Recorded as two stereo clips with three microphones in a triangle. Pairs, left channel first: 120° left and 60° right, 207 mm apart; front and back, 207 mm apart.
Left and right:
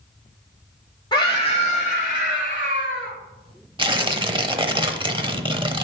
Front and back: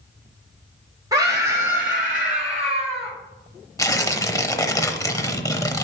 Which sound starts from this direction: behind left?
A scream, at 1.1 s.